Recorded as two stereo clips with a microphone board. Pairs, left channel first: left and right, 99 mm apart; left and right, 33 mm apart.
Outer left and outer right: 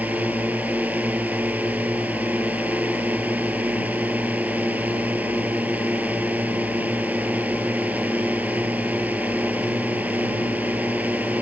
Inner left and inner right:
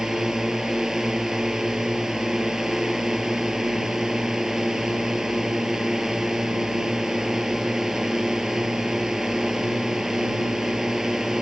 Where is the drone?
15° right (ahead or behind).